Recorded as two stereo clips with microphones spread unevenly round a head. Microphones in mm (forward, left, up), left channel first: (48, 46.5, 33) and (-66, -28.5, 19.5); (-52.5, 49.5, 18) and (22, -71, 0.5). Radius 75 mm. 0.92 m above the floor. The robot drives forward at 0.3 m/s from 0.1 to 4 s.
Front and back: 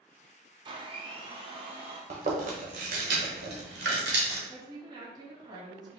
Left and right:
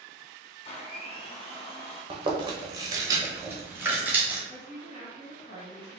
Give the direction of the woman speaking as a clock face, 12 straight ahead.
7 o'clock.